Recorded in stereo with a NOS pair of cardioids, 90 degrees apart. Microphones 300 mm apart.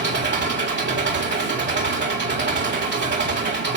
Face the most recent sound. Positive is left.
turn(degrees=-40)